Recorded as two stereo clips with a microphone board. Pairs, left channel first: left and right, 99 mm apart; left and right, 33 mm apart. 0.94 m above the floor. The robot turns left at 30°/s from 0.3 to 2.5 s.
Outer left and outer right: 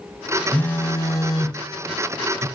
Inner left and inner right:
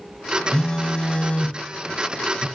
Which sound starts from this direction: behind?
A phone buzzing, at 0.5 s.